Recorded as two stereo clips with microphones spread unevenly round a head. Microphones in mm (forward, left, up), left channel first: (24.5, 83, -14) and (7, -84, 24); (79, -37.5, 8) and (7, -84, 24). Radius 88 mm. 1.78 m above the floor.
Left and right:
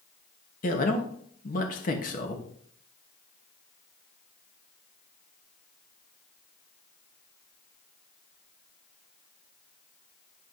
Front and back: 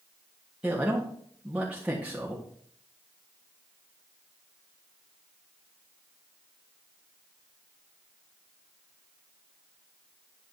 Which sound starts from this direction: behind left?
A man speaking, at 0.6 s.